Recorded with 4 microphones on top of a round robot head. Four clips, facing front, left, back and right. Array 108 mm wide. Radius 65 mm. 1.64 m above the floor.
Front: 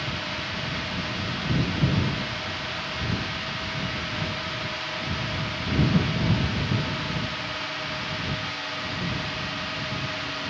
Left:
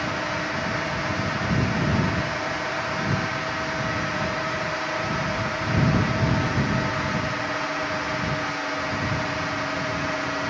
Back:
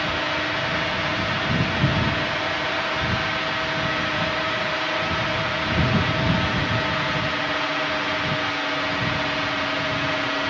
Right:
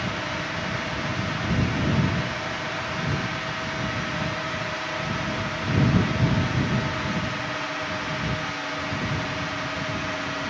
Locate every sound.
0.0 s a drone: 155° left